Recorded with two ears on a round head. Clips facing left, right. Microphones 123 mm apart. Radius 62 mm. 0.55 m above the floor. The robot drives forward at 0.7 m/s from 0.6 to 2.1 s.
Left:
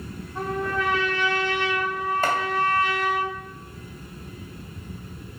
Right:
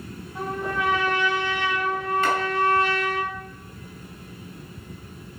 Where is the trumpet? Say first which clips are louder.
Left 1 dB; 15° right (ahead or behind), 3.5 m; by 3.2 s 20° right (ahead or behind), 2.5 m.